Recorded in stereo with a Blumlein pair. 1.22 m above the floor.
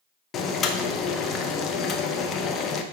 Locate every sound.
0.3 s boiling: 25° left, 0.7 m